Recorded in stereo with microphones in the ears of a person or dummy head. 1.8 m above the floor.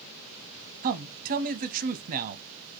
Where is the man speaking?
50° right (ahead or behind), 0.7 m.